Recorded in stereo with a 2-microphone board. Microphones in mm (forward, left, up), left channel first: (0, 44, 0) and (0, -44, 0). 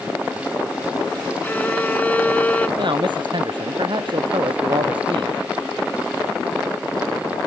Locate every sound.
1.4 s a violin: 20° left (ahead or behind)
2.8 s a man speaking: 65° right (ahead or behind)